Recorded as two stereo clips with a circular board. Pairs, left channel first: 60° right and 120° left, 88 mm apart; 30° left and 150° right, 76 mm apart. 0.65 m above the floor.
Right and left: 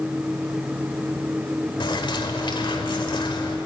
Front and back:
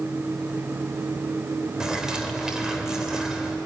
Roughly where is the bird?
Right.